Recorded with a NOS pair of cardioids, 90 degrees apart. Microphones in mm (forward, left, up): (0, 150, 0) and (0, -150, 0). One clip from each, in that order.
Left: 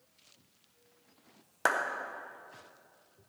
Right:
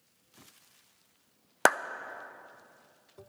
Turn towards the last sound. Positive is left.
turn(degrees=-45)